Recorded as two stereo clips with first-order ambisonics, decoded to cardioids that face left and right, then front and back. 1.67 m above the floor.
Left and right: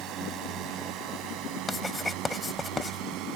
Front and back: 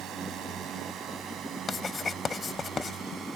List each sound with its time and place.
0.0 s a drone: 135° right; by 3.4 s 120° right
1.7 s writing: 35° left